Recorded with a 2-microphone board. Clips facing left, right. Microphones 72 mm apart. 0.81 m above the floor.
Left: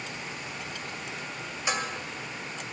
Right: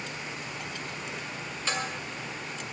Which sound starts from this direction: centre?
Dishes clattering, at 1.7 s.